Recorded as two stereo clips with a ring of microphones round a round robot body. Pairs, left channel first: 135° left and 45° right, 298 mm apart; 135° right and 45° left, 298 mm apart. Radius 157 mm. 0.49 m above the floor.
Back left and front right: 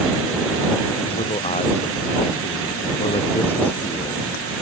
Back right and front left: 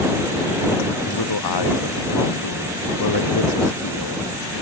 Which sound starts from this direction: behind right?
A man speaking, at 1.1 s.